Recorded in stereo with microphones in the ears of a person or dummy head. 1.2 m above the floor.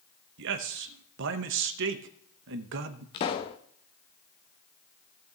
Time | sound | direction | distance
0.4 | a man speaking | 65° right (ahead or behind) | 1.0 m
3.1 | a pop | 20° left (ahead or behind) | 0.5 m